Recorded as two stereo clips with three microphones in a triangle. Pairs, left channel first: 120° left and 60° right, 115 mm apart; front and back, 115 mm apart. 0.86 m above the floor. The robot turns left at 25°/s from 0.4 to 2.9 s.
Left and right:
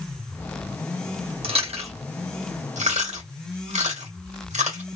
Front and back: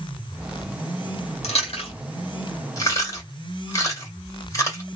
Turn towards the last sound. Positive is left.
turn(degrees=-60)